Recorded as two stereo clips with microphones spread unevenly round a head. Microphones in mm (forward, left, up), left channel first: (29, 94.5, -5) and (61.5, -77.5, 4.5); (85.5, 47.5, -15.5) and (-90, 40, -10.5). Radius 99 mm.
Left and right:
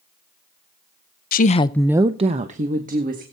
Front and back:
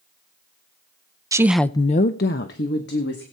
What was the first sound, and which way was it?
A woman speaking, 115° left.